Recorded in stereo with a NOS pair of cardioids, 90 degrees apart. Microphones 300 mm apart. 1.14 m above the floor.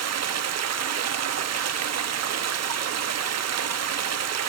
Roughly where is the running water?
Ahead right.